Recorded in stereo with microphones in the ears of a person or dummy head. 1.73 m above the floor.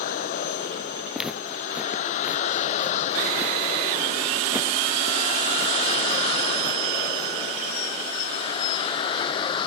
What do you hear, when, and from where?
0.0 s a vehicle: 45° left (ahead or behind); by 9.7 s 25° left (ahead or behind)
1.1 s footsteps: 5° right (ahead or behind); by 7.3 s 25° right (ahead or behind)